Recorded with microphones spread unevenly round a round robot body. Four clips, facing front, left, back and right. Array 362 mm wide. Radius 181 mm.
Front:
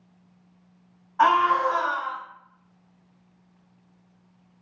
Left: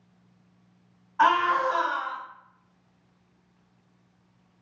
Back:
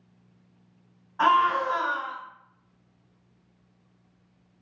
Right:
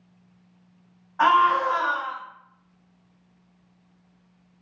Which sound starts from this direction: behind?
A scream, at 1.2 s.